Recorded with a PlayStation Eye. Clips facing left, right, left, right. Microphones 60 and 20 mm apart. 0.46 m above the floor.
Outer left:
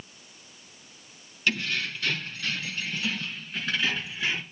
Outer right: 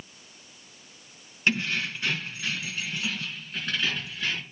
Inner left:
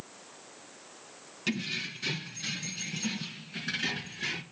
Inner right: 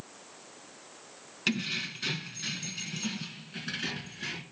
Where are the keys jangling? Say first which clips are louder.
Outer right 2 dB, inner right 2 dB; 30° right (ahead or behind), 3.5 m; by 4.4 s 10° left (ahead or behind), 4 m.